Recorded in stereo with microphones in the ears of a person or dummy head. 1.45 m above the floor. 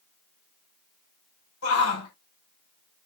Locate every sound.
1.6 s a shout: 85° left, 5 m